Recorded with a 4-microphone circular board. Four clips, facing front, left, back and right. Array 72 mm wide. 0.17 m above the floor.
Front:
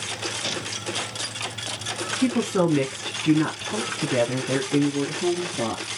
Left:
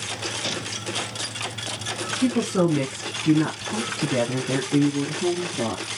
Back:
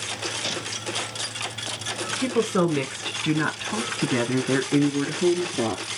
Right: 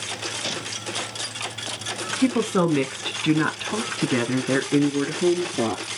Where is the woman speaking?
100° right, 1.6 m; by 5.8 s 120° right, 3 m.